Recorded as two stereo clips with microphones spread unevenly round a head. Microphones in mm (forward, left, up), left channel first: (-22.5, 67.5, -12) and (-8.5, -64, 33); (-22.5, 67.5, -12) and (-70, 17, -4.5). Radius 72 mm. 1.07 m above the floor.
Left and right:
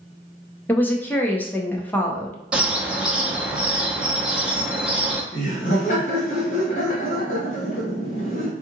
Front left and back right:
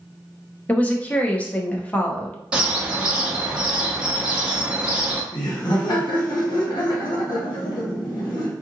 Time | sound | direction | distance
0.7 | a woman speaking | 80° left | 0.6 m
2.5 | a bird | 95° right | 0.5 m
5.3 | laughter | 60° left | 1.3 m